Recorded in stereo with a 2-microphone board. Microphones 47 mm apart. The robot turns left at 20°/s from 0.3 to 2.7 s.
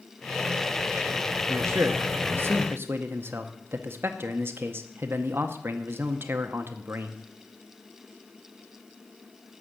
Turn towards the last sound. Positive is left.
turn(degrees=-50)  # may be behind; listen again after turning